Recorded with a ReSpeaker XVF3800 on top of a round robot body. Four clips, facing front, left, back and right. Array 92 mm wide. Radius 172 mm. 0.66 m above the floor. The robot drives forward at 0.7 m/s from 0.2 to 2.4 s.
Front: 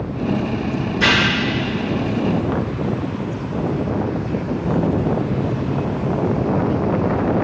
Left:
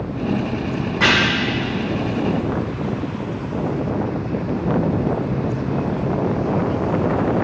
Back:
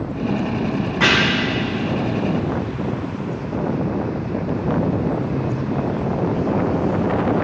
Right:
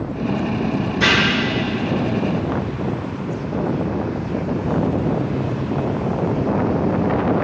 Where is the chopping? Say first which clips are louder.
Left 1 dB, back 1 dB; 145° left, 3 m.